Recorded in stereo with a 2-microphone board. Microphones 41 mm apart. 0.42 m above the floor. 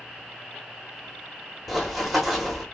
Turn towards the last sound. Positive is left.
turn(degrees=0)  # may be behind; listen again after turning